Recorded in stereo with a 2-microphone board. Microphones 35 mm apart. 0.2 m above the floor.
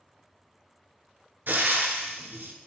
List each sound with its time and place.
1.5 s frying: 75° right (ahead or behind), 0.6 m